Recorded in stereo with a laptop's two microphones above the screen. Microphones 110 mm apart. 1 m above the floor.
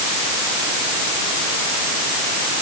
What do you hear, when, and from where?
Only background noise.